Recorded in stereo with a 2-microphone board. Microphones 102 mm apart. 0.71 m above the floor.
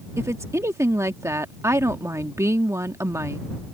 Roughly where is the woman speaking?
Right.